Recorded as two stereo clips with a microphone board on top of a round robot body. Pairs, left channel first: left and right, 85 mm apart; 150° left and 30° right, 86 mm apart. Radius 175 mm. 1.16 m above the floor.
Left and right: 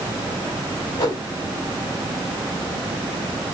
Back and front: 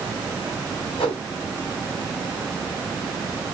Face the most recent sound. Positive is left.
turn(degrees=130)